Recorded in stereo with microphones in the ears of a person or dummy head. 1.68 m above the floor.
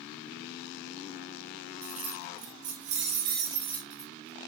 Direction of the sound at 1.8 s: 45° right (ahead or behind).